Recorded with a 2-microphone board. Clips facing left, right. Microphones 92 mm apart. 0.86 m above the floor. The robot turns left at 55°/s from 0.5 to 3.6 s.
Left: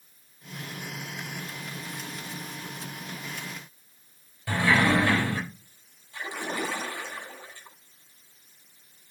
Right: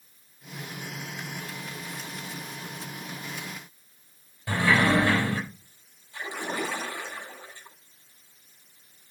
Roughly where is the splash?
Right.